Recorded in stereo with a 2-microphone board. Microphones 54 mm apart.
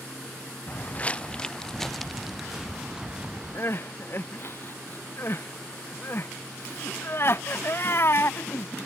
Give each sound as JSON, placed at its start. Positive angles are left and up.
{"t": 0.7, "sound": "footsteps", "side_deg": 35}
{"t": 3.5, "sound": "crying", "side_deg": 45}